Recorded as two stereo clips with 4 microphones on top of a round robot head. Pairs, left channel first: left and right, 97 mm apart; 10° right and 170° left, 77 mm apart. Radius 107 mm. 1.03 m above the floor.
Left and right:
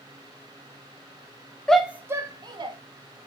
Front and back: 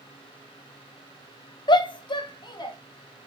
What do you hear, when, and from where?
1.7 s a shout: 10° left, 0.8 m; by 2.8 s 45° right, 1.7 m